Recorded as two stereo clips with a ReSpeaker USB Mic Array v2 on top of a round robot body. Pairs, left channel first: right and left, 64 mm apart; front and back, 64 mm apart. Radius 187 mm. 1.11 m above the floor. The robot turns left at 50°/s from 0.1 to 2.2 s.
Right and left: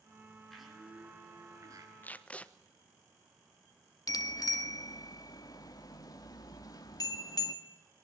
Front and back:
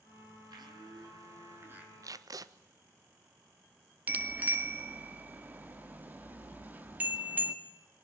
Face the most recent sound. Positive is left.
turn(degrees=-115)